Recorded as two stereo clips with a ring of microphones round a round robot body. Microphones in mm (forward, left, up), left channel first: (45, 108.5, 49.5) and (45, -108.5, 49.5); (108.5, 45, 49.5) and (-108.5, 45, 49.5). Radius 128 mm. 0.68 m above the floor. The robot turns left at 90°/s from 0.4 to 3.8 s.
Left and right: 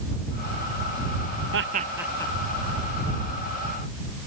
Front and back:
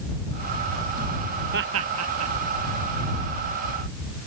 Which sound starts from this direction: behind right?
Laughter, at 1.5 s.